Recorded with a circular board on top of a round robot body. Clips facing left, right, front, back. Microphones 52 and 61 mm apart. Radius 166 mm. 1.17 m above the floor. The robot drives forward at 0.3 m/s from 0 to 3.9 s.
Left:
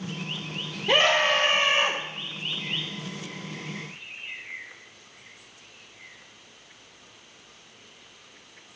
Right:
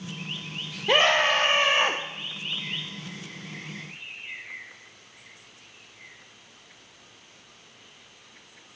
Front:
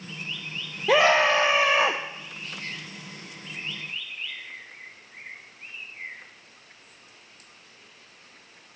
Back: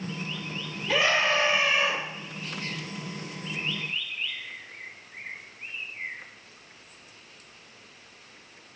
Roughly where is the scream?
Ahead.